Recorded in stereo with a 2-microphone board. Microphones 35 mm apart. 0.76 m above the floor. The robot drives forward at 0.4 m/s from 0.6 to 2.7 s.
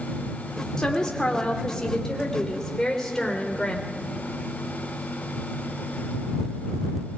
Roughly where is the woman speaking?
Centre.